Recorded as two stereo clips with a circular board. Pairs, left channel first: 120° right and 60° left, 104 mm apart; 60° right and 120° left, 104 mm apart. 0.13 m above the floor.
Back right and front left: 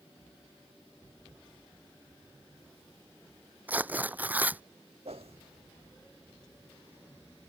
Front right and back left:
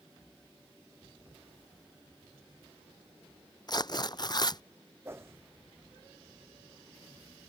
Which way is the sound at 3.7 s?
15° right.